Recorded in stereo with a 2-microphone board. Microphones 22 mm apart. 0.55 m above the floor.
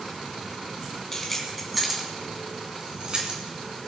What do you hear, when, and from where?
1.1 s keys jangling: 15° left (ahead or behind), 3 m; by 3.4 s 50° right (ahead or behind), 3.5 m